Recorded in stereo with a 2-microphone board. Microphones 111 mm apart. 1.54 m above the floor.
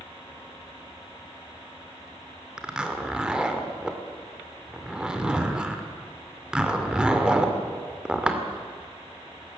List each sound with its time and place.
2.6 s a zipper: 10° right (ahead or behind), 2 m